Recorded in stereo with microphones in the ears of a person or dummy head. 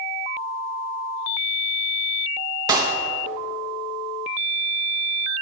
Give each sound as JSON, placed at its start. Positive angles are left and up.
{"t": 2.7, "sound": "a clap", "side_deg": -25, "distance_m": 1.1}